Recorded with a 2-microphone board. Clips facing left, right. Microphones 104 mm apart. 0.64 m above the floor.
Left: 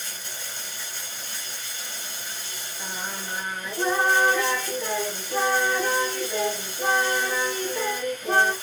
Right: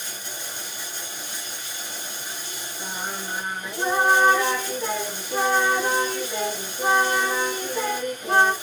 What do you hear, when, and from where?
0.0 s running water: 15° right (ahead or behind), 2.5 m
2.8 s singing: 15° right (ahead or behind), 3.5 m